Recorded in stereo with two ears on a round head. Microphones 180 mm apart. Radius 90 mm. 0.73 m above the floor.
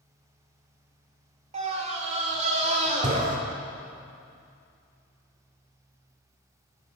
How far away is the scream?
About 2 m.